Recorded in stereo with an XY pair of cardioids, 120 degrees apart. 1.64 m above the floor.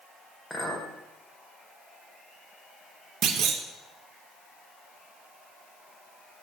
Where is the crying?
No crying in this recording.